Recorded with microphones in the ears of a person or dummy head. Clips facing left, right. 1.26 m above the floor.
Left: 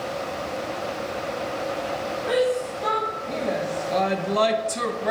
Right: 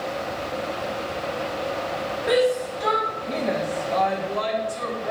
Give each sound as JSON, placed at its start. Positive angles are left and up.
{"t": 2.3, "sound": "a shout", "side_deg": -30, "distance_m": 3.0}